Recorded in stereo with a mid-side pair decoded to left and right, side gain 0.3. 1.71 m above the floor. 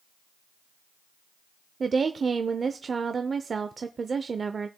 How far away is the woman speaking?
About 0.6 m.